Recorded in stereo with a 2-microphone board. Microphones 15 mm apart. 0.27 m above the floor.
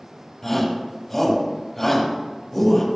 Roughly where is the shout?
Centre.